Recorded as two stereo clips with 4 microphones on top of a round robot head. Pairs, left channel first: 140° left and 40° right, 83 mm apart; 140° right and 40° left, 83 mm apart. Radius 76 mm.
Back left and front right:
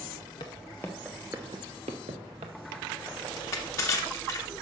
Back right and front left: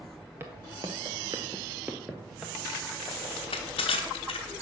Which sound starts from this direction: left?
Footsteps, at 0.4 s.